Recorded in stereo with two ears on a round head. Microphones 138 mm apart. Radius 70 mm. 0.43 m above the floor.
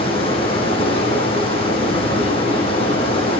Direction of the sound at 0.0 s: 35° left (ahead or behind).